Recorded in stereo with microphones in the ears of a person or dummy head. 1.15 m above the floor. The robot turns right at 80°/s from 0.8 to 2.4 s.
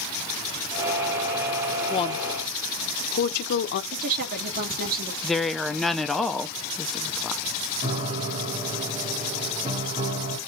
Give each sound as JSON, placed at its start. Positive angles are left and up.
{"t": 1.9, "sound": "a woman speaking", "side_deg": 15, "distance_m": 0.7}
{"t": 3.9, "sound": "a woman speaking", "side_deg": -50, "distance_m": 1.5}
{"t": 5.2, "sound": "a woman speaking", "side_deg": 0, "distance_m": 0.5}
{"t": 7.8, "sound": "a piano", "side_deg": -25, "distance_m": 1.0}